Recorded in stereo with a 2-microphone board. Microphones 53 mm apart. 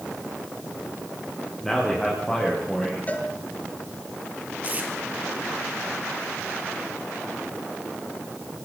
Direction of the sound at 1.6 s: 10° left (ahead or behind).